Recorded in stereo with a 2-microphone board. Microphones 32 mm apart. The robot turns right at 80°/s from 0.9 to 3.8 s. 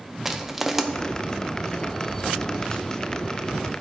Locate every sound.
0.2 s crushing: 5° right (ahead or behind), 0.5 m